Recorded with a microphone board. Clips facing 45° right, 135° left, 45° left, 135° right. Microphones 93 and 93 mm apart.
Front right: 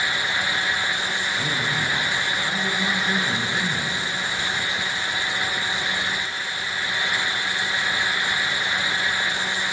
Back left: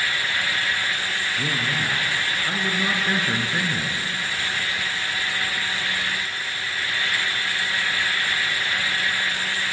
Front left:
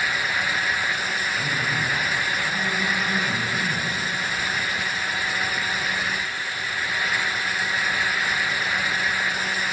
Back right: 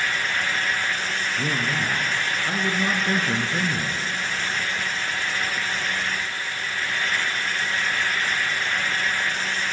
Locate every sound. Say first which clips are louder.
1.4 s a man speaking: back left 1 dB, back right 1 dB; 160° right, 3.5 m